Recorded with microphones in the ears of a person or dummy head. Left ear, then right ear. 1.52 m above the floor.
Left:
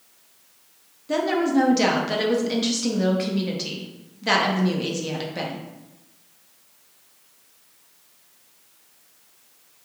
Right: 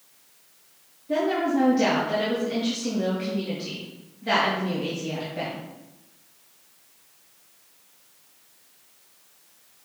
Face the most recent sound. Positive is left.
turn(degrees=40)  # may be behind; listen again after turning